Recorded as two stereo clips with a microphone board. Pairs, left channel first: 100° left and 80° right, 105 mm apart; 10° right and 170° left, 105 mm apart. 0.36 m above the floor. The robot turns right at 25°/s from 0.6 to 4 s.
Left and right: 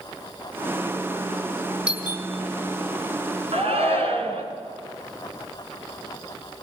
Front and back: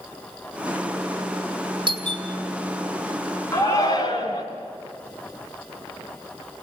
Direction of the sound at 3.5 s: 70° right.